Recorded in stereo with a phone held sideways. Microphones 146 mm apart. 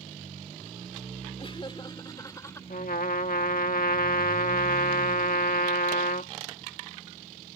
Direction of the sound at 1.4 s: 40° left (ahead or behind).